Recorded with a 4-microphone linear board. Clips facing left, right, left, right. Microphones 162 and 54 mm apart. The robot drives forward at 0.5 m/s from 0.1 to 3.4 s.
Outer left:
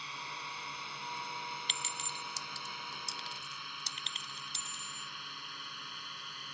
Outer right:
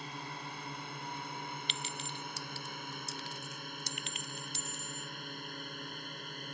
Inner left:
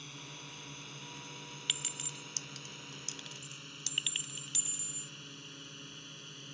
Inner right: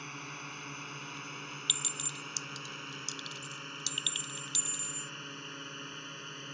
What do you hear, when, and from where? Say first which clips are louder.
0.0 s a drone: outer right 3 dB, inner right 6 dB; 50° right (ahead or behind); by 6.5 s 45° right (ahead or behind)
1.7 s a clink: outer right 2 dB, inner right 1 dB; 45° left (ahead or behind); by 5.1 s 30° left (ahead or behind)